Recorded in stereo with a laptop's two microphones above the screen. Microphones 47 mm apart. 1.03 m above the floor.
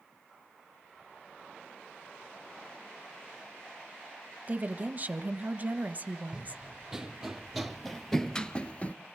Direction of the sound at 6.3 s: 15° right (ahead or behind).